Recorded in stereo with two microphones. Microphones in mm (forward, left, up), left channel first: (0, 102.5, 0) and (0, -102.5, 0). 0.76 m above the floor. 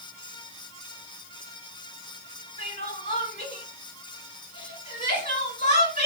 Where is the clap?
I don't hear a clap.